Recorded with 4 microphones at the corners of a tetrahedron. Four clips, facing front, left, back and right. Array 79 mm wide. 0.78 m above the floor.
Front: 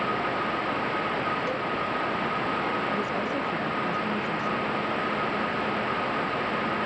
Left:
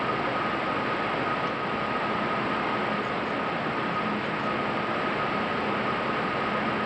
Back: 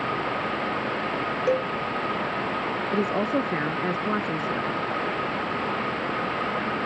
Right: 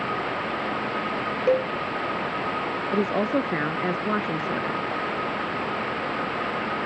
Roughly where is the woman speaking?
Behind right.